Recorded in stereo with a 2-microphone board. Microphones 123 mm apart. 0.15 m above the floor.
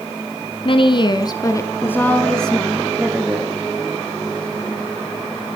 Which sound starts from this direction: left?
A woman speaking, at 0.7 s.